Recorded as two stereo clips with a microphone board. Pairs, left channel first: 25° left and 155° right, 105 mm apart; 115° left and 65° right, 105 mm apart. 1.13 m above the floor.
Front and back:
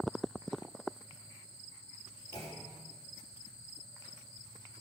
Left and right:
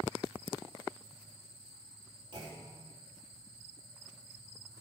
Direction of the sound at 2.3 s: 25° right.